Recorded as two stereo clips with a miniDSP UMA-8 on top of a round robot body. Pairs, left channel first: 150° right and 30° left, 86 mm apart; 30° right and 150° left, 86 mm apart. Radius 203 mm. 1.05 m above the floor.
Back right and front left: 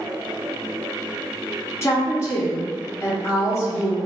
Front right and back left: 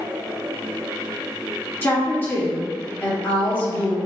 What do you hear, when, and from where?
1.8 s a woman speaking: 95° right, 1.2 m